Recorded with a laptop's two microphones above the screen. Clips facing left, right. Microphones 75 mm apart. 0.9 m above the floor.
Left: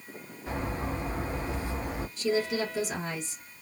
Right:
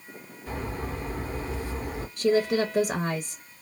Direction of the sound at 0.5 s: 25° left (ahead or behind).